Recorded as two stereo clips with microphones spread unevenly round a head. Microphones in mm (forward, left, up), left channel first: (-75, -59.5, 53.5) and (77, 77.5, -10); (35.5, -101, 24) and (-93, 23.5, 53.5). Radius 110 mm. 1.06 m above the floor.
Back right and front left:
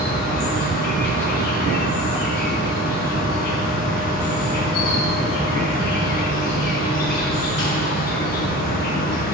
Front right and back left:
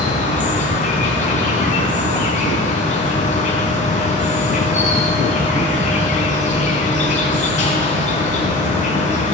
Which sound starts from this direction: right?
An insect, at 0.0 s.